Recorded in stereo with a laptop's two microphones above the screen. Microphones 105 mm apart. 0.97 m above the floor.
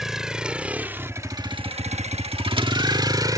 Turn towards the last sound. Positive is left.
turn(degrees=-35)  # may be behind; listen again after turning